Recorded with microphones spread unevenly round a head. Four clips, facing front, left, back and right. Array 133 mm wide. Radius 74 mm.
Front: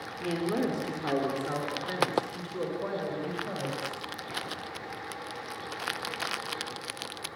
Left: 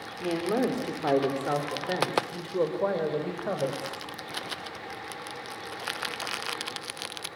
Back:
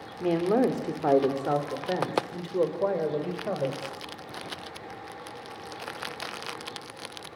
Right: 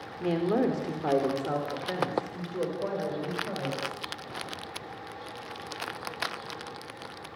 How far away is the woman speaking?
About 3.5 m.